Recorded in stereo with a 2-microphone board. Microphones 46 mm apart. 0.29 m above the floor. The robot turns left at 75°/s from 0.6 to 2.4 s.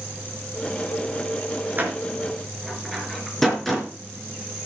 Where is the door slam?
40° right (ahead or behind), 4 m; by 3.9 s 5° left (ahead or behind), 4 m.